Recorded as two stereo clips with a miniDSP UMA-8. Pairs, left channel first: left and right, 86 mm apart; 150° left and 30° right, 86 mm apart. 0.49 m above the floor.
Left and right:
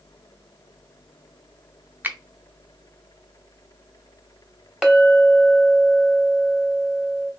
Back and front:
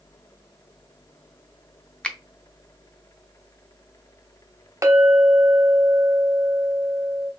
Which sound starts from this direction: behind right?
A finger snap, at 2.0 s.